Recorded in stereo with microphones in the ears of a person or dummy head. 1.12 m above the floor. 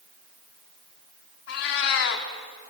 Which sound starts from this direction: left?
A cat meowing, at 1.5 s.